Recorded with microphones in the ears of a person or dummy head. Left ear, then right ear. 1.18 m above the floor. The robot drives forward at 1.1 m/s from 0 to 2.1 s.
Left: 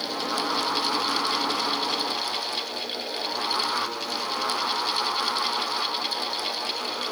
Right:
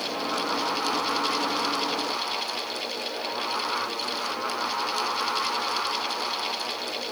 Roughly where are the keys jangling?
I don't hear keys jangling.